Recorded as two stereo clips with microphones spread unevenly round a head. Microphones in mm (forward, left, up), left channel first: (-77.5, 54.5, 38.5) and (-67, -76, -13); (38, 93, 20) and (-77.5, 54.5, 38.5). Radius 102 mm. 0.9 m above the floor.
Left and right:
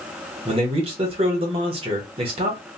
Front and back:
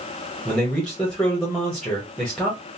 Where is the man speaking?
60° right, 0.9 m.